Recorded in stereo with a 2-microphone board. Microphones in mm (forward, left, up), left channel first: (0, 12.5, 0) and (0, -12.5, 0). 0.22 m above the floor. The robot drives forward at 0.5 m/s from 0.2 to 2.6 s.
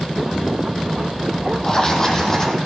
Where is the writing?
20° left (ahead or behind), 1.2 m; by 2.6 s 15° left (ahead or behind), 1.7 m.